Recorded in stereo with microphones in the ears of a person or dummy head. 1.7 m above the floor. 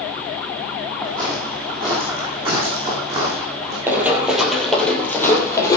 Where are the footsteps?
20° right (ahead or behind), 3 m; by 3.8 s 30° right (ahead or behind), 5.5 m.